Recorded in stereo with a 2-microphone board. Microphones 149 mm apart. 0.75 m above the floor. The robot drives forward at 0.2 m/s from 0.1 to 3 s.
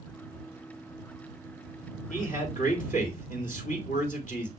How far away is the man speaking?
About 3.5 m.